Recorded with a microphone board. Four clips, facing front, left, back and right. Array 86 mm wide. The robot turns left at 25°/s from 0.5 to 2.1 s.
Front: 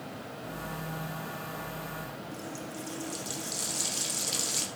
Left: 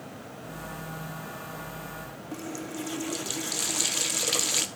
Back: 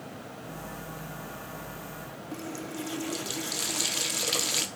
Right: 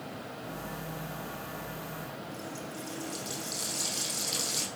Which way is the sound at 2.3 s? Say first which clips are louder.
Left 4 dB, back 3 dB; 125° left.